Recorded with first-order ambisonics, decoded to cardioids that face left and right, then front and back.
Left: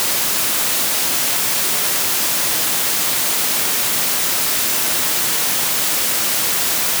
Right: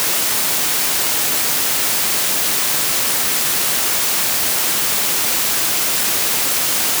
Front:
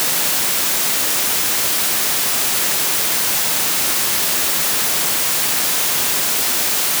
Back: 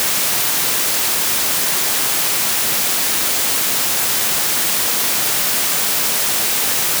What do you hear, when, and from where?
Only background noise.